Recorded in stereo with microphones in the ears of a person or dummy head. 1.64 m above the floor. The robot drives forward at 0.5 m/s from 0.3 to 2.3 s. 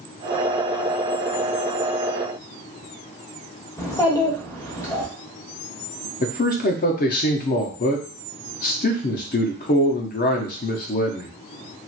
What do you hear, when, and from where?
3.8 s a child speaking: 15° left (ahead or behind), 0.9 m
6.2 s a man speaking: 45° left (ahead or behind), 0.7 m